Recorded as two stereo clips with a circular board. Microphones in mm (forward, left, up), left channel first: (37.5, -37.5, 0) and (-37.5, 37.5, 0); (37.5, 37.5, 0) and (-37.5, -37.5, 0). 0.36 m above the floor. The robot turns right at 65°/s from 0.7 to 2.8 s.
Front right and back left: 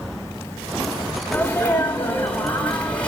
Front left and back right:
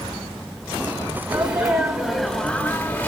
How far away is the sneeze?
About 1.3 m.